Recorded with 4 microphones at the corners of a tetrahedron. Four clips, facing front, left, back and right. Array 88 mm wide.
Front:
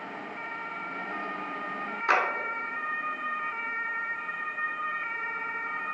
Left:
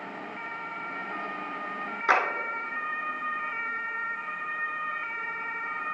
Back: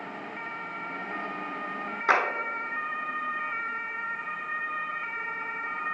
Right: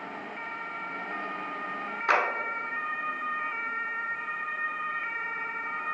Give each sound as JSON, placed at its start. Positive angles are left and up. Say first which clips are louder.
{"t": 2.1, "sound": "a clap", "louder": "left 1 dB, back 1 dB", "azimuth_deg": 130, "distance_m": 0.9}